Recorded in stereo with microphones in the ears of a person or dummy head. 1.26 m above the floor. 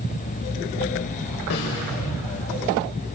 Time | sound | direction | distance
1.5 | a snare drum | 60° left (ahead or behind) | 7 m